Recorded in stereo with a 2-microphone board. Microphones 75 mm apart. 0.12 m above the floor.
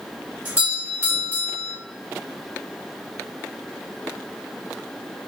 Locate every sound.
0.5 s a doorbell: 20° right (ahead or behind), 2 m